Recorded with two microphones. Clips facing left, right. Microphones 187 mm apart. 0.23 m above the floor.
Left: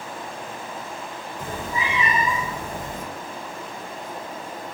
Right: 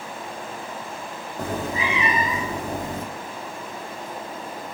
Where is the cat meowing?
70° right (ahead or behind), 2.5 m.